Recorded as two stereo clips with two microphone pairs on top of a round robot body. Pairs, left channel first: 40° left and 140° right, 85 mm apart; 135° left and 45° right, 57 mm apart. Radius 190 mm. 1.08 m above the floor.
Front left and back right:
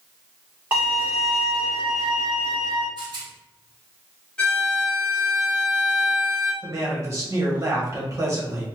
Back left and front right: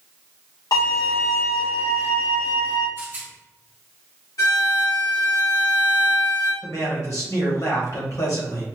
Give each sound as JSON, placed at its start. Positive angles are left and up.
{"t": 0.7, "sound": "a violin", "azimuth_deg": 145, "distance_m": 1.8}
{"t": 3.0, "sound": "a rattle", "azimuth_deg": -105, "distance_m": 0.9}
{"t": 4.4, "sound": "a violin", "azimuth_deg": 120, "distance_m": 2.0}
{"t": 6.6, "sound": "a man speaking", "azimuth_deg": 165, "distance_m": 1.7}